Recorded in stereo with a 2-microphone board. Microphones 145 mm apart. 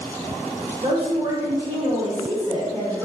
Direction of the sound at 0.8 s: 35° right (ahead or behind).